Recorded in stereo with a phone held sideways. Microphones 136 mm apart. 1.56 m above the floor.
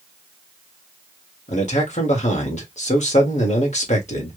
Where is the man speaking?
60° left (ahead or behind), 1.5 m.